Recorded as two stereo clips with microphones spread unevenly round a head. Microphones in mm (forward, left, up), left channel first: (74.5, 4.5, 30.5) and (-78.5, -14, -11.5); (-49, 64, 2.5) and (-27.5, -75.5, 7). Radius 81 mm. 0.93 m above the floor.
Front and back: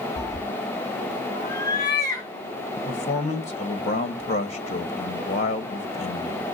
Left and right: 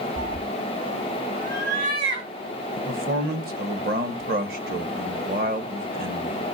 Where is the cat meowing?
35° right, 0.5 m; by 2.3 s 60° right, 3 m.